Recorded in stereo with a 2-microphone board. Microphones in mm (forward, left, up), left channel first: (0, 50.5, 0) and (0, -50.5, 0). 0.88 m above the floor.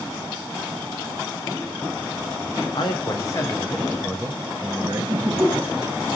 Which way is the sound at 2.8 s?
50° left (ahead or behind).